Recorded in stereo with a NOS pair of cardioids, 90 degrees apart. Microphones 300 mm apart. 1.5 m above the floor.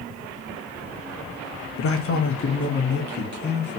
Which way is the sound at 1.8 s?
50° left.